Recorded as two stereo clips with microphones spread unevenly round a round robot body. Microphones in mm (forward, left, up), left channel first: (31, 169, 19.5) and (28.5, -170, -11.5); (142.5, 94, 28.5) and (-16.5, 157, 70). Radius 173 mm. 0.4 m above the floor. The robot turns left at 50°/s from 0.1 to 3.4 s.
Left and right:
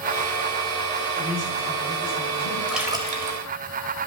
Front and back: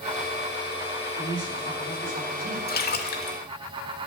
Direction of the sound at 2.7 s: Straight ahead.